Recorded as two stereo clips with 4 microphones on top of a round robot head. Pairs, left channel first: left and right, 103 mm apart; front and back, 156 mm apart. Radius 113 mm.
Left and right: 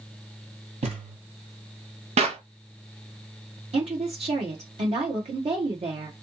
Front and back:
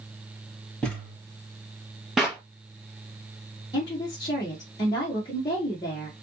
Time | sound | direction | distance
0.8 | a thud | 85° right | 2.5 m
2.2 | a clap | 90° right | 0.7 m
3.7 | a woman speaking | 65° right | 1.3 m